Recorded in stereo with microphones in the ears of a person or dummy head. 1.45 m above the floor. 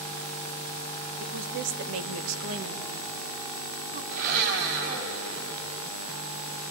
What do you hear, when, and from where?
1.2 s a woman speaking: 45° right (ahead or behind), 1.6 m
4.1 s a blender: 55° right (ahead or behind), 4 m